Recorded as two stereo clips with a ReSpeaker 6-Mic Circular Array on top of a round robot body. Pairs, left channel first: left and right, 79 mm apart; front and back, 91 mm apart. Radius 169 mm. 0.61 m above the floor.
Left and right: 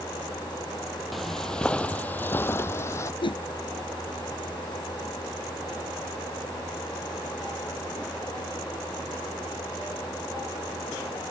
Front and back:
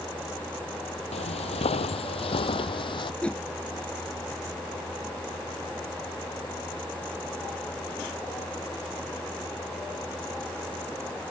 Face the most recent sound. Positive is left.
turn(degrees=80)